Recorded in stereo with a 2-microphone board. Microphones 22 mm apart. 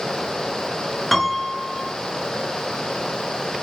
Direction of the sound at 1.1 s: 5° left (ahead or behind).